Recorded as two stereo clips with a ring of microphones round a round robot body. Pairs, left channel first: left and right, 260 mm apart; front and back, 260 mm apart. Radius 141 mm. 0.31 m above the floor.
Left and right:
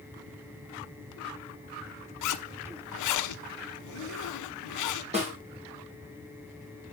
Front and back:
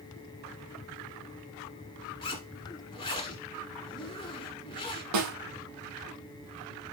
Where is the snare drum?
160° right, 2 m.